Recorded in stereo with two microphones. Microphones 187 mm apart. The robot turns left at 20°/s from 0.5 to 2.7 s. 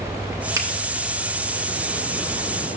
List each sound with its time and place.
0.6 s a finger snap: 15° right (ahead or behind), 0.8 m